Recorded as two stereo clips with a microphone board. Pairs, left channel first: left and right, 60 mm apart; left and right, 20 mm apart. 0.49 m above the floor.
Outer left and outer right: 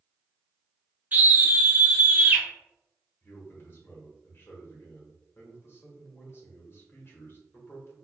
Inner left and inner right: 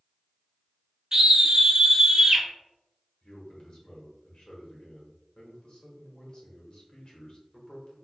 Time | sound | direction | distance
1.1 | a scream | 30° right (ahead or behind) | 1.0 m
3.2 | a man speaking | 40° left (ahead or behind) | 1.4 m